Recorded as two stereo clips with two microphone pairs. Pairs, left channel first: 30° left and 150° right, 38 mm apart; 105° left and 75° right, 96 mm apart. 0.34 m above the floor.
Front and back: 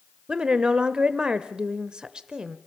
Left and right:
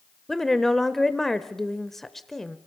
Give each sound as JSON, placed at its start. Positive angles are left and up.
{"t": 0.3, "sound": "a woman speaking", "azimuth_deg": -170, "distance_m": 0.9}